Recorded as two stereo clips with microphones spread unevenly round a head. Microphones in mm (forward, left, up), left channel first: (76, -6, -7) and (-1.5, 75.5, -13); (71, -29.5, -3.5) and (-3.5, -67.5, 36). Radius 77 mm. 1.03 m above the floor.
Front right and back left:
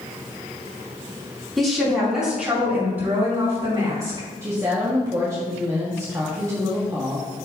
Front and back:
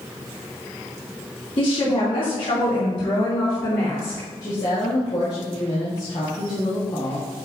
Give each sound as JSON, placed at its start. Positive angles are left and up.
{"t": 1.6, "sound": "a woman speaking", "azimuth_deg": 40, "distance_m": 3.0}
{"t": 4.4, "sound": "a woman speaking", "azimuth_deg": 70, "distance_m": 1.6}